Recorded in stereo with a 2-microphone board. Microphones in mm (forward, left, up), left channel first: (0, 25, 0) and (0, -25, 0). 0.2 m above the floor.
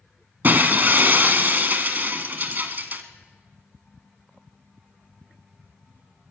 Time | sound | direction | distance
0.4 | breaking glass | 40° right (ahead or behind) | 1.1 m